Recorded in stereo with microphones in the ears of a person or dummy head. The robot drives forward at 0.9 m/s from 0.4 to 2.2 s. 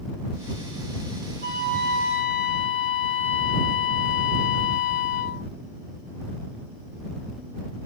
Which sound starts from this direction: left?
A flute, at 1.4 s.